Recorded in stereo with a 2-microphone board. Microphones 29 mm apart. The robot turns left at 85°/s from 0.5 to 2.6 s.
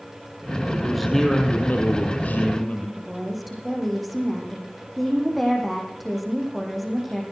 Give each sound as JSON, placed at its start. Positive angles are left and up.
{"t": 0.7, "sound": "a man speaking", "azimuth_deg": -155, "distance_m": 4.5}
{"t": 3.0, "sound": "a woman speaking", "side_deg": 0, "distance_m": 7.0}